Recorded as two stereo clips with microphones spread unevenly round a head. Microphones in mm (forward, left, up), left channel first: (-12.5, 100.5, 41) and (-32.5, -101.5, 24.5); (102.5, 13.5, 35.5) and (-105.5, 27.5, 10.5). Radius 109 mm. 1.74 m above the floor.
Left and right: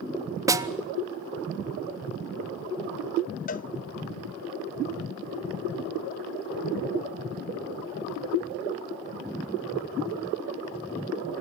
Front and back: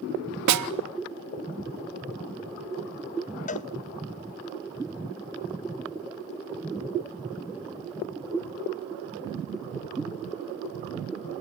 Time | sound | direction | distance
0.5 | a snare drum | 170° right | 0.9 m
3.5 | a cowbell | 40° left | 0.5 m